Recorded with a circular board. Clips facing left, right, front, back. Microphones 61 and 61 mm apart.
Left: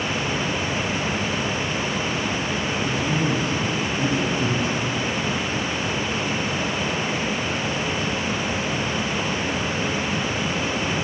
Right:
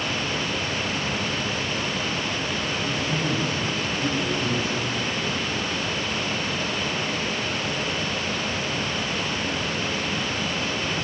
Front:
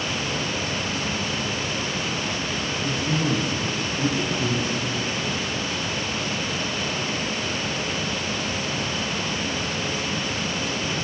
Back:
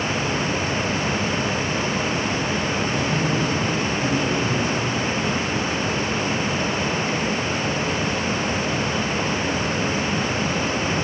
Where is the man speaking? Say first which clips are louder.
Left 4 dB, back 2 dB; 55° left, 6 m.